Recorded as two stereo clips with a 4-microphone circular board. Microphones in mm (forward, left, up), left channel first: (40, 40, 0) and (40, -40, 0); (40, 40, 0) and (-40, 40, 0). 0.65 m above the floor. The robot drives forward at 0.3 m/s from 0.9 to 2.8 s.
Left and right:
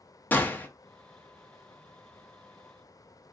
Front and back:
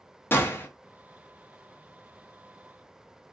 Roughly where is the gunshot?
Ahead left.